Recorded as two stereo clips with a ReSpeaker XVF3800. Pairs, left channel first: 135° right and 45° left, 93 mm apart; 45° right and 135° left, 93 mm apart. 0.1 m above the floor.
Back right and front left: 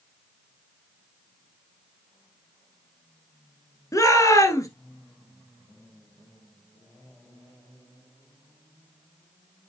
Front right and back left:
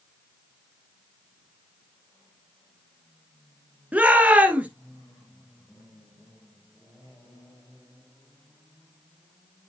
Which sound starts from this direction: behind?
A shout, at 3.9 s.